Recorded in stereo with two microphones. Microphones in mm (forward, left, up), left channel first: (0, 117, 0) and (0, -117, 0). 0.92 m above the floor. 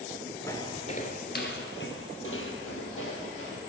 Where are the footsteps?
10° left (ahead or behind), 0.9 m; by 3.6 s 65° left (ahead or behind), 2.5 m.